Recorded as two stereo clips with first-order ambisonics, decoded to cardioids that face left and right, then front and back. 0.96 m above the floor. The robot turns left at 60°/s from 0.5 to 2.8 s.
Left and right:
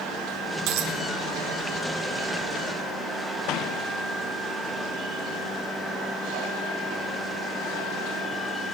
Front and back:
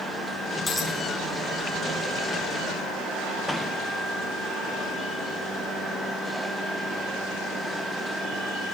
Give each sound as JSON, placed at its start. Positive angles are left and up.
{"t": 0.7, "sound": "a dropped coin", "azimuth_deg": -70, "distance_m": 6.0}